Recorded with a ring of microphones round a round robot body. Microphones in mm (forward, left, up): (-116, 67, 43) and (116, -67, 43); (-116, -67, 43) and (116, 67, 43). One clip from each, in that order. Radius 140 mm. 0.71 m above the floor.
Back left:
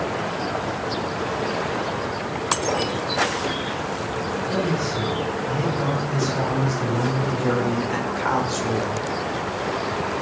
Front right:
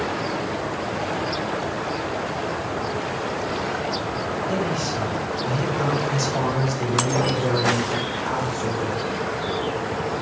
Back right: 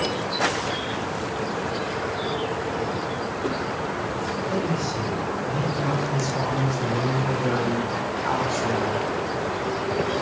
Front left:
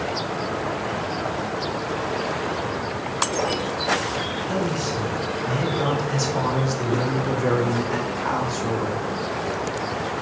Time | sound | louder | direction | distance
4.5 | a man speaking | back left 2 dB, front left 1 dB | 10° left | 5 m